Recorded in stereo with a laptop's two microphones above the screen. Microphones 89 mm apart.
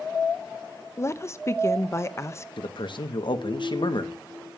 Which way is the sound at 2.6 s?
60° left (ahead or behind).